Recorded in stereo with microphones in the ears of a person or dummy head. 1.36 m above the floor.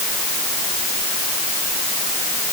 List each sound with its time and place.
Only background noise.